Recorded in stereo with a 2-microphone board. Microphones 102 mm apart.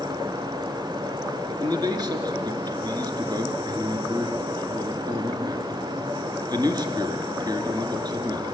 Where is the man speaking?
40° right (ahead or behind), 2 m.